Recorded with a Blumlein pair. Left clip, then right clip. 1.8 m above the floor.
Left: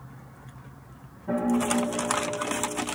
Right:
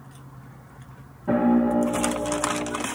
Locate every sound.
1.3 s a piano: 65° right, 1.1 m